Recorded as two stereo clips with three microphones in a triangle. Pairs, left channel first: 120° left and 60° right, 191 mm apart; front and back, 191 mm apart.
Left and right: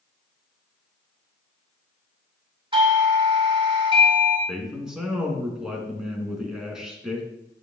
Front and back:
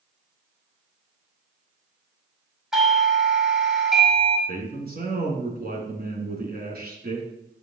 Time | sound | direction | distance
2.7 | a doorbell | 95° right | 1.7 m
4.5 | a man speaking | 145° right | 2.5 m